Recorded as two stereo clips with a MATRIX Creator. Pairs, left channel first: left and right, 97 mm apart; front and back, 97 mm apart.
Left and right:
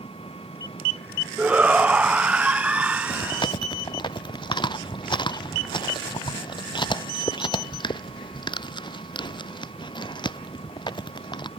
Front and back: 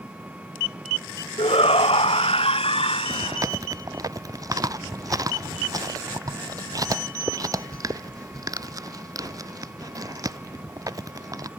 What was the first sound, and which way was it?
An engine running, 105° left.